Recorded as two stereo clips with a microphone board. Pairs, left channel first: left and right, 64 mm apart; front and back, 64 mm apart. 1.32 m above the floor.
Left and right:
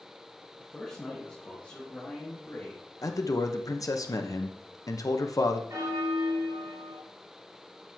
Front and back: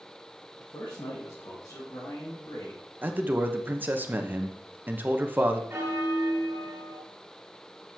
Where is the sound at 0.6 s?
Straight ahead, 1.6 m; by 2.8 s 35° left, 4 m.